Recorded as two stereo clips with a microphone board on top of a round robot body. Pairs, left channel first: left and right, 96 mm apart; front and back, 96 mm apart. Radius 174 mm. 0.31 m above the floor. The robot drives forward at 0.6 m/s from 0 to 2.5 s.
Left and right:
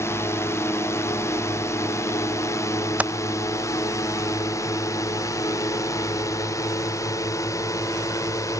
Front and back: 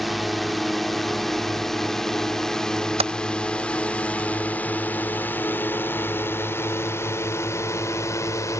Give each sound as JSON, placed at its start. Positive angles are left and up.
{"t": 0.0, "sound": "a drone", "azimuth_deg": 90}
{"t": 3.0, "sound": "typing on a keyboard", "azimuth_deg": -165}